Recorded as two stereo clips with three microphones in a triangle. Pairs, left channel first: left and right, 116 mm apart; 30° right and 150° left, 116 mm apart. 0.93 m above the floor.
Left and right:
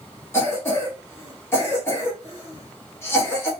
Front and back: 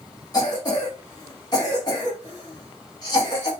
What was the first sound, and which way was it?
A cough, 20° left.